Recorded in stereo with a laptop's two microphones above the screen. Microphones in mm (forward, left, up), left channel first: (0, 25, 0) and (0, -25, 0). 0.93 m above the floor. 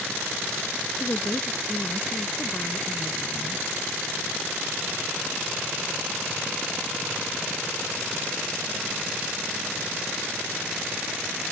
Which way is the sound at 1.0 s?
75° left (ahead or behind).